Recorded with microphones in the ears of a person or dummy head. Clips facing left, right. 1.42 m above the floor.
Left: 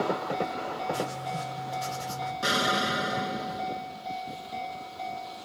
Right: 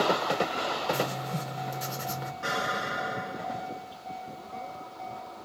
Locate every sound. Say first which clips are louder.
0.9 s writing: right 1 dB; 25° right (ahead or behind), 0.8 m
2.4 s an explosion: left 5 dB; 55° left (ahead or behind), 0.8 m